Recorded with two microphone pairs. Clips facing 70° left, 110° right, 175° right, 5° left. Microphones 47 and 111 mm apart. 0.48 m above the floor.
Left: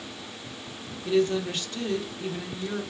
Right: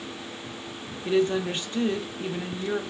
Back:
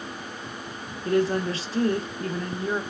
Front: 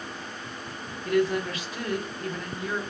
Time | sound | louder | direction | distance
1.1 | a woman speaking | right 1 dB, back 1 dB | 145° right | 0.8 m